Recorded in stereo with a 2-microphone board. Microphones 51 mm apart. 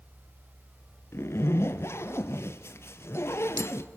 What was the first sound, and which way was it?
A zipper, 55° left (ahead or behind).